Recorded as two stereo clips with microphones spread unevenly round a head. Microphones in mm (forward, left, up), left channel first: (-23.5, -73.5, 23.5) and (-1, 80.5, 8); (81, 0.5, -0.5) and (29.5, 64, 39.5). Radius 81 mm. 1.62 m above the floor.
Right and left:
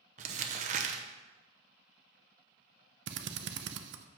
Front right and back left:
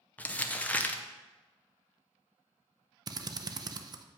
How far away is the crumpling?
About 0.7 m.